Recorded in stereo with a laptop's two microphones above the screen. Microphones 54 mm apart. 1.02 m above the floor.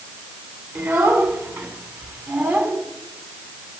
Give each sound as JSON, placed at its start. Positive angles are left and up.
{"t": 0.8, "sound": "a child speaking", "side_deg": -45, "distance_m": 8.0}